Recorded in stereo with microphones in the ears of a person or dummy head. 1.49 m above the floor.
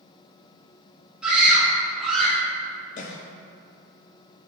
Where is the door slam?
No door slam in this recording.